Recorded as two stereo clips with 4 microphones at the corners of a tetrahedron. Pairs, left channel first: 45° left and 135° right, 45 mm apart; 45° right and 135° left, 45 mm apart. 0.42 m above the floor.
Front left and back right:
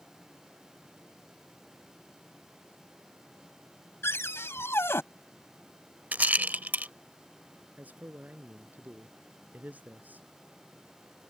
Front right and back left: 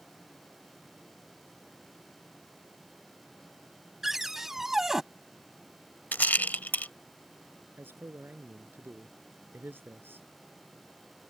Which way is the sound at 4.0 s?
55° left.